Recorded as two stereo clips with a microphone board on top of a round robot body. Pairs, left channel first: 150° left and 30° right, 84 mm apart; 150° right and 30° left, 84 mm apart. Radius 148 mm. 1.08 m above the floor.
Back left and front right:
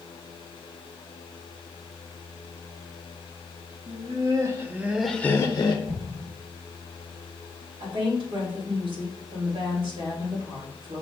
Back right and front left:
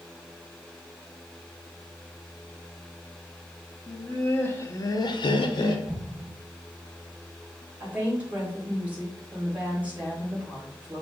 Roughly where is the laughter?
Ahead right.